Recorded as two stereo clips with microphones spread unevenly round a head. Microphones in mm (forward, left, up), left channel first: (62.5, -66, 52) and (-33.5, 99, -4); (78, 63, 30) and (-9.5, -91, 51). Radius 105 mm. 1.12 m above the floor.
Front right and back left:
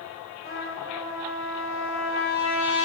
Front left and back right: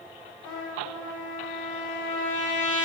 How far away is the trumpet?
About 2.5 m.